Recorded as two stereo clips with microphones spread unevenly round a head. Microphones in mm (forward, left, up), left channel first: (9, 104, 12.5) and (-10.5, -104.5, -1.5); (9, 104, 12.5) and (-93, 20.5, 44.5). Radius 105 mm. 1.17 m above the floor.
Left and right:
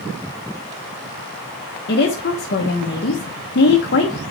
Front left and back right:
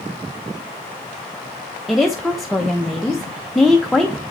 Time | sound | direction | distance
1.9 | a woman speaking | 125° left | 0.9 m